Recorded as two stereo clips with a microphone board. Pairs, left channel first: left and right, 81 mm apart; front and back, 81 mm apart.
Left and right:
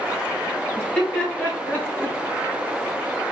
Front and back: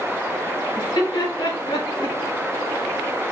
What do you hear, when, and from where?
0.8 s laughter: 5° left, 2 m; by 2.1 s 30° right, 1.8 m